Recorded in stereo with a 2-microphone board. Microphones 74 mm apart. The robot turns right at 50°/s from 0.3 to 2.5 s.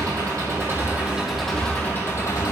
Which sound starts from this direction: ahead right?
An engine running, at 0.0 s.